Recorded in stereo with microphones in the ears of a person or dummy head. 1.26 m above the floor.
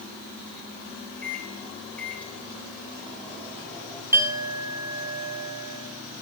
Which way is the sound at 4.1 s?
10° right (ahead or behind).